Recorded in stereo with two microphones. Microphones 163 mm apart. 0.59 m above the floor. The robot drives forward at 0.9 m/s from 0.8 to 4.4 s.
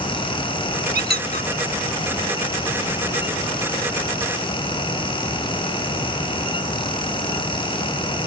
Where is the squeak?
80° right.